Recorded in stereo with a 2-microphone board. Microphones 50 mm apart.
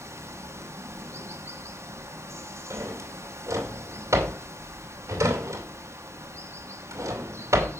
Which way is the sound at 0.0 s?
70° right (ahead or behind).